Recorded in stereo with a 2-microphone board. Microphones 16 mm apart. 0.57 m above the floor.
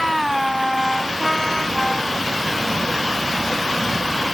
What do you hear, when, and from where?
Only background noise.